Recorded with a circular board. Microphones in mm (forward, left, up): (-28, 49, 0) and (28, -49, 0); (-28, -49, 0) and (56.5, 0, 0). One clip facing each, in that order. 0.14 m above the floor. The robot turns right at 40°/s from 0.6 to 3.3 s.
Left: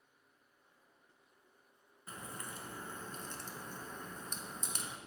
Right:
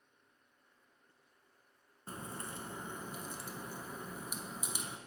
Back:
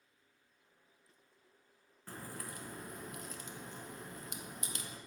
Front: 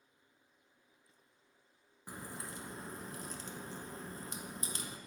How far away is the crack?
About 0.7 m.